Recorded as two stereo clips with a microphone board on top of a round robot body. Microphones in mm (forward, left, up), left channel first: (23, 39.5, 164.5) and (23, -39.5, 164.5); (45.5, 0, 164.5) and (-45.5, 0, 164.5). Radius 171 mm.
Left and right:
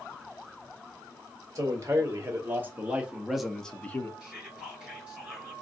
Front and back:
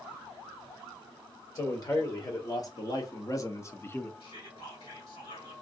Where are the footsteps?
I don't hear footsteps.